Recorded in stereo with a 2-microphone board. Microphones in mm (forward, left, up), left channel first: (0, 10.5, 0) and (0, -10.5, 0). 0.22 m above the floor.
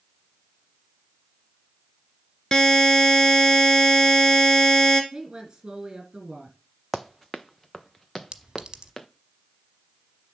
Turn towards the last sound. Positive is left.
turn(degrees=-50)  # may be behind; listen again after turning